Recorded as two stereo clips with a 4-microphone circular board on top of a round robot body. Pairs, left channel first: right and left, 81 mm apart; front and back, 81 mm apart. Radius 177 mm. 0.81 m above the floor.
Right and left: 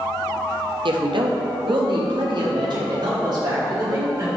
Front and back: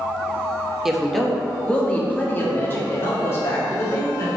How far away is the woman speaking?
About 1.3 m.